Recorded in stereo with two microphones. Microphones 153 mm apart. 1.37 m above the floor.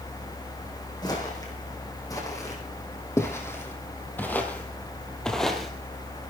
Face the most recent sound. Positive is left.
turn(degrees=-5)  # may be behind; listen again after turning